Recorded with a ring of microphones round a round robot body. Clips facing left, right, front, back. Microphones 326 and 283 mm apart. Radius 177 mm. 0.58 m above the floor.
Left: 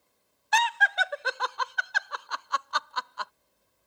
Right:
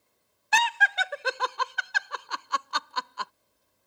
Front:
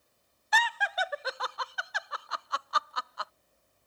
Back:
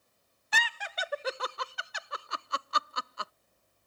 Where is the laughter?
130° right.